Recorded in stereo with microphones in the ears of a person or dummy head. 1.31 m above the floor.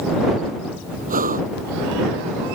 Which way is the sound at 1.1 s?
40° right (ahead or behind).